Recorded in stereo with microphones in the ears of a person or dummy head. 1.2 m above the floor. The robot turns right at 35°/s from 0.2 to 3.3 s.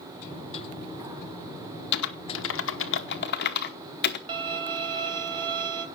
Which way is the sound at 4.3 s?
30° right (ahead or behind).